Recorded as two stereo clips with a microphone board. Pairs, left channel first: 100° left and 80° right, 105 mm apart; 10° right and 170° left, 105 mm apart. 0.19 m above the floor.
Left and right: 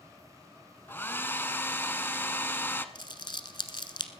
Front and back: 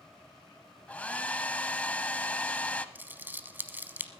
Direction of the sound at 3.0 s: 105° left.